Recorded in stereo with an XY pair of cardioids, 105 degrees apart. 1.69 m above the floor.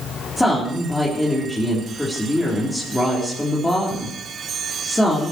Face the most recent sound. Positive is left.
turn(degrees=5)